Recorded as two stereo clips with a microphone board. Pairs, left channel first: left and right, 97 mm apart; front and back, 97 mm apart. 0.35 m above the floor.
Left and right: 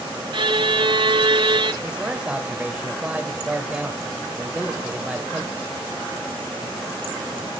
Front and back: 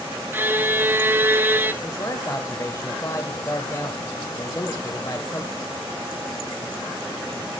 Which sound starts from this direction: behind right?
A violin, at 0.3 s.